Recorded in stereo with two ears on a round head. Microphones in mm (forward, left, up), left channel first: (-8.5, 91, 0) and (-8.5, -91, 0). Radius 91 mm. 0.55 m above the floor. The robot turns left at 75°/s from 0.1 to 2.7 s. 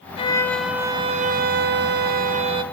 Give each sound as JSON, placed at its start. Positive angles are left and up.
{"t": 0.2, "sound": "a violin", "azimuth_deg": 35, "distance_m": 0.6}